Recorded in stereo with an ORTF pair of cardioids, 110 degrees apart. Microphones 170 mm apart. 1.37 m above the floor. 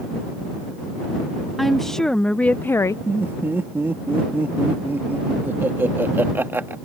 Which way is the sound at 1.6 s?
Straight ahead.